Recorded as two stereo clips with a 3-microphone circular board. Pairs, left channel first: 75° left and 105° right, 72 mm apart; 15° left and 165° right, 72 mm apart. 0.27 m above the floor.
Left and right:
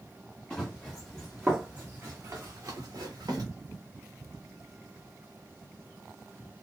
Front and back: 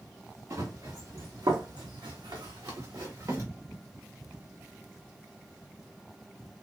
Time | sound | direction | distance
0.5 | running footsteps | 155° left | 1.2 m